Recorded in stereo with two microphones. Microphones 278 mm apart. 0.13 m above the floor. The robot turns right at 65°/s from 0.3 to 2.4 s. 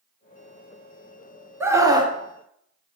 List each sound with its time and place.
1.6 s a scream: 10° right (ahead or behind), 1.2 m; by 2.1 s 15° right (ahead or behind), 1.2 m